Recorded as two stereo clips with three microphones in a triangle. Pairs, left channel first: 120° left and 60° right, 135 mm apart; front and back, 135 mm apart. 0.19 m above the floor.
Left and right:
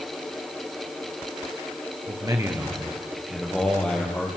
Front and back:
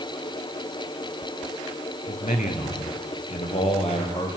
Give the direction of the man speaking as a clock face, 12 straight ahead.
12 o'clock.